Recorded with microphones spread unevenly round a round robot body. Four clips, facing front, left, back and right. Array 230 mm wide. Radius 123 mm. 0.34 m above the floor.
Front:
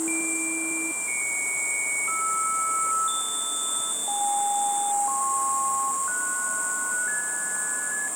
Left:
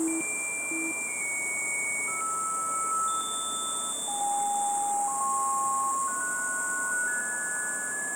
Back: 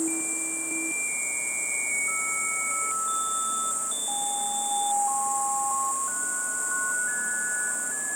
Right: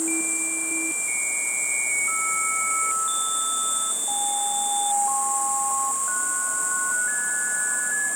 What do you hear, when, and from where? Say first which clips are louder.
0.0 s an insect: right 1 dB, front 2 dB; 100° left, 1.6 m